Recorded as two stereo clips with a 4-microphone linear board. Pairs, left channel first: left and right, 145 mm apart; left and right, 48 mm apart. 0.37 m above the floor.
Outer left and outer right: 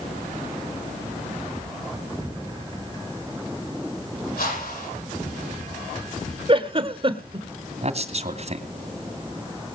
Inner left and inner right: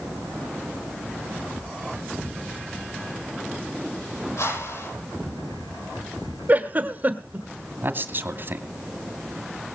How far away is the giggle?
About 1.4 m.